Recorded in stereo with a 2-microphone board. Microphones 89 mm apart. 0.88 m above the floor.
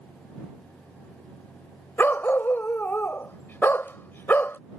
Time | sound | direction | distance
2.0 | a dog barking | 20° left (ahead or behind) | ?